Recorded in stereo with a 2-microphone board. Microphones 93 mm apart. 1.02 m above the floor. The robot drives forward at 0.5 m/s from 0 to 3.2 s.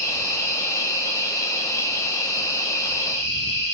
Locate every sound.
0.0 s an insect: 20° left (ahead or behind), 6.5 m; by 3.8 s 30° left (ahead or behind), 5 m